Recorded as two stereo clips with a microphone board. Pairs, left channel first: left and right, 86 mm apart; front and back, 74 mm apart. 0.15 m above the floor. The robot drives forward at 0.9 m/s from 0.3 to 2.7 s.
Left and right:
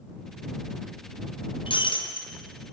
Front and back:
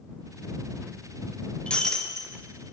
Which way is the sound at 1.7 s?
75° left.